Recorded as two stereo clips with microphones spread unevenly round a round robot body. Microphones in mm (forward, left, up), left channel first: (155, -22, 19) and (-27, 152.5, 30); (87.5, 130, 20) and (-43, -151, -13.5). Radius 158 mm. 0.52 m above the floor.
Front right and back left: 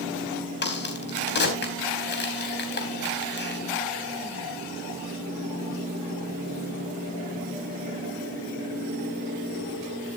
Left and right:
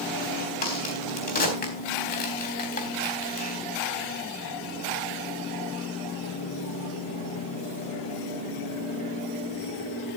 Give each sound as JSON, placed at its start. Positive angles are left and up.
{"t": 0.6, "sound": "a crack", "azimuth_deg": 0, "distance_m": 4.0}